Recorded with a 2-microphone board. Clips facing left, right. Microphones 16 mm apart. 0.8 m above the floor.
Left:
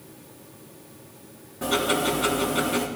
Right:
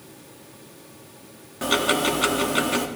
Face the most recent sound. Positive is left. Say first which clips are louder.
# right 2 dB
turn(degrees=-65)  # may be behind; listen again after turning